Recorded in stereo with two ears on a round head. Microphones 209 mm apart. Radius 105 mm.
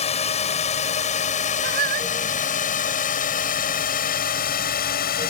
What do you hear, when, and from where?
0.0 s a drone: 30° left (ahead or behind); by 5.3 s 45° left (ahead or behind)
1.6 s singing: 45° right (ahead or behind)